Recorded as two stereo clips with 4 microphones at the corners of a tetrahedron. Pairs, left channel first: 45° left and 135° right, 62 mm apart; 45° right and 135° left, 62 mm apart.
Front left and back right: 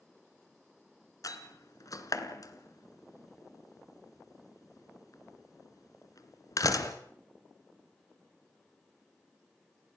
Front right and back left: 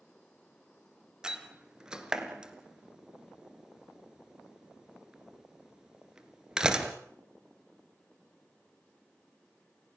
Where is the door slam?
55° left, 2 m.